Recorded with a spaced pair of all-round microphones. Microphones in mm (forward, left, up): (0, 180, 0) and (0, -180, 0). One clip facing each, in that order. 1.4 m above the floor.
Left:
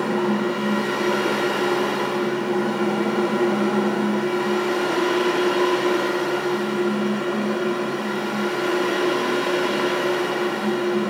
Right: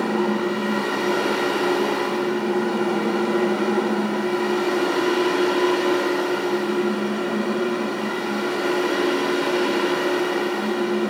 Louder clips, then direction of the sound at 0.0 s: Even; 50° right (ahead or behind).